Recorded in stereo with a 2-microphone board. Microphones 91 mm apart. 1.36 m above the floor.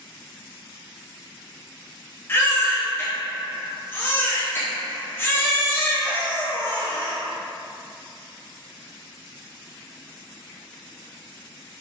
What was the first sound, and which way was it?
A baby crying, 25° left (ahead or behind).